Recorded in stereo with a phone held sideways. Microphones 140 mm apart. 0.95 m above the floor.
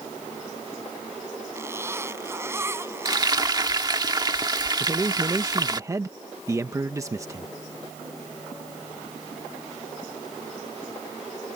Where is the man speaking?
25° right (ahead or behind).